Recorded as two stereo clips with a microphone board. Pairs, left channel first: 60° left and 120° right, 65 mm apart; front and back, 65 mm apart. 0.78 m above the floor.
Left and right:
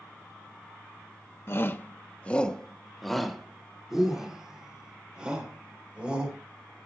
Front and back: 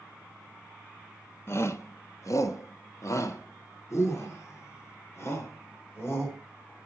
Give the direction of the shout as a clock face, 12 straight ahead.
11 o'clock.